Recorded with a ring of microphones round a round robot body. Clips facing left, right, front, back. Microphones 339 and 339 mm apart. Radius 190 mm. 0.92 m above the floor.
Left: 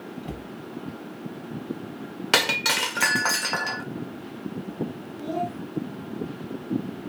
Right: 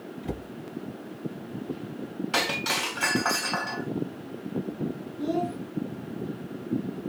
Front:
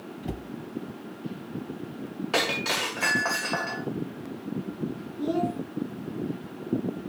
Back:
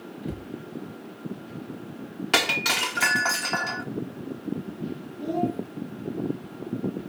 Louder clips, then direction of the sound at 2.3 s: Left 2 dB, even; 120° left.